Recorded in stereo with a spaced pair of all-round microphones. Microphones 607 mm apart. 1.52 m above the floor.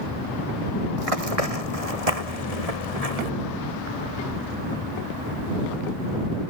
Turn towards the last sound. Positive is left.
turn(degrees=-75)  # may be behind; listen again after turning